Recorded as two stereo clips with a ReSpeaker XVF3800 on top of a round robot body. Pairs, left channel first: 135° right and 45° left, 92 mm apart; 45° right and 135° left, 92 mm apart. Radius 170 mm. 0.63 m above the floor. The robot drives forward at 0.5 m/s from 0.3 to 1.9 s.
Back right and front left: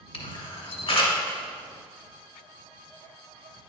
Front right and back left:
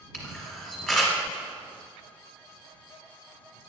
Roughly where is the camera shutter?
Behind right.